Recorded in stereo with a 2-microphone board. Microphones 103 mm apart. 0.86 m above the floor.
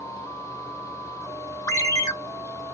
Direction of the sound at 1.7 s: 30° left (ahead or behind).